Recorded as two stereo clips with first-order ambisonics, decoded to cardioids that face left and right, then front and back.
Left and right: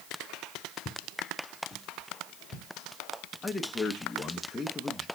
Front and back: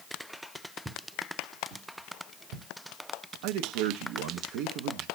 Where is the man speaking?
175° left, 0.8 m.